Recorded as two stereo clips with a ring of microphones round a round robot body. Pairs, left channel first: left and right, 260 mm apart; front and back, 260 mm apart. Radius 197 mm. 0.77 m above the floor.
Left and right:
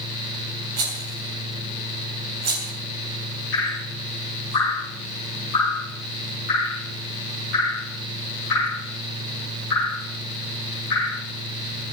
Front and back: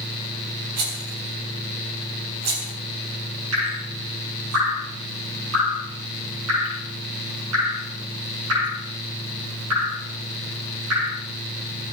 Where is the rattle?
135° right, 2.5 m.